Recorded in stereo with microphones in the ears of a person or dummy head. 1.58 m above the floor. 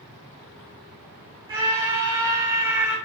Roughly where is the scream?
Right.